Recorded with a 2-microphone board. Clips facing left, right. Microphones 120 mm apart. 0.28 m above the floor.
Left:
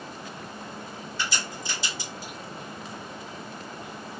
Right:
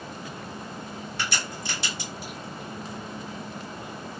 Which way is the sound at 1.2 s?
65° right (ahead or behind).